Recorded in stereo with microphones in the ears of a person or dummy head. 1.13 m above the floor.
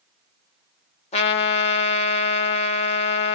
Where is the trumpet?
35° left (ahead or behind), 0.5 m.